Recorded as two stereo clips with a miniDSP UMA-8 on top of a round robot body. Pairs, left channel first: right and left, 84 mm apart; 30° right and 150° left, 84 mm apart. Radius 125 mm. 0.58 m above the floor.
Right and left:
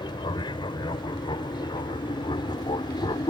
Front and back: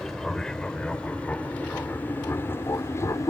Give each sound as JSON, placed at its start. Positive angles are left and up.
{"t": 0.0, "sound": "an aircraft", "azimuth_deg": -115}